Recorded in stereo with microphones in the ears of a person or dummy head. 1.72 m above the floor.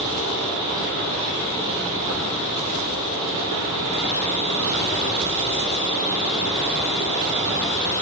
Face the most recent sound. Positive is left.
turn(degrees=-30)  # may be behind; listen again after turning